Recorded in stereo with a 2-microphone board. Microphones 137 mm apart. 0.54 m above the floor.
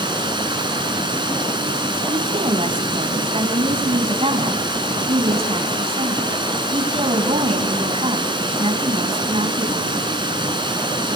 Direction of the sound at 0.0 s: 35° right (ahead or behind).